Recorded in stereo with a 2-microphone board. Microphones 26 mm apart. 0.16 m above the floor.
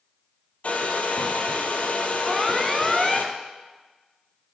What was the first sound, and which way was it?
A hair dryer, 55° left (ahead or behind).